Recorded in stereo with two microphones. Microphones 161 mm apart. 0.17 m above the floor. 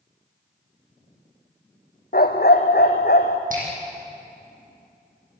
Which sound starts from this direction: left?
A dog barking, at 2.1 s.